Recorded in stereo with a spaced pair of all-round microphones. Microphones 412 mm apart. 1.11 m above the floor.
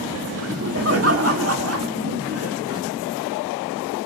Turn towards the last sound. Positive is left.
turn(degrees=-35)  # may be behind; listen again after turning